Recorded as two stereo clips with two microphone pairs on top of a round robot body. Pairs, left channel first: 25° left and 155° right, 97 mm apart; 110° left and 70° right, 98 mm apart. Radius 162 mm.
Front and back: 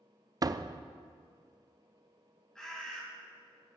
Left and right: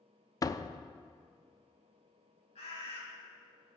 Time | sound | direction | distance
0.4 | a door slam | 165° left | 0.5 m
2.5 | a bird | 110° left | 4.5 m